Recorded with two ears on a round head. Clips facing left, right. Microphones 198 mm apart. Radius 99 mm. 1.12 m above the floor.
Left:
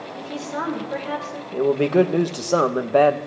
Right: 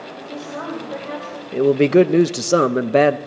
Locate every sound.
0.2 s a woman speaking: 20° left (ahead or behind), 6.5 m
1.5 s a man speaking: 30° right (ahead or behind), 0.8 m